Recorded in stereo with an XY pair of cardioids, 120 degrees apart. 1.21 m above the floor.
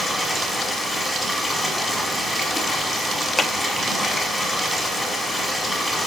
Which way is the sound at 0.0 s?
Straight ahead.